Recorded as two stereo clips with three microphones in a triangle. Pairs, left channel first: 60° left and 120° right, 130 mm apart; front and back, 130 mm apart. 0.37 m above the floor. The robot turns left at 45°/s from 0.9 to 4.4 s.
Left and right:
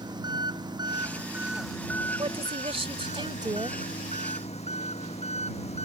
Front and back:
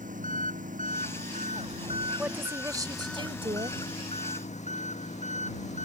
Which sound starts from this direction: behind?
An engine running, at 0.0 s.